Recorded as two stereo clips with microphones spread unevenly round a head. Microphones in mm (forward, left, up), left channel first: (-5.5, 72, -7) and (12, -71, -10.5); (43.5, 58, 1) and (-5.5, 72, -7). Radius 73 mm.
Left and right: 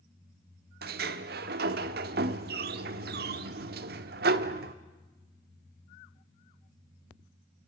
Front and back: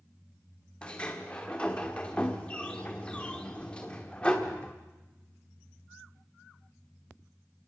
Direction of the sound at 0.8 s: 90° right.